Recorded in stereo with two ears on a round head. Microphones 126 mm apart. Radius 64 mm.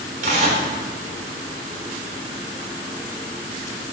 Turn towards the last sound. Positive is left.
turn(degrees=-60)  # may be behind; listen again after turning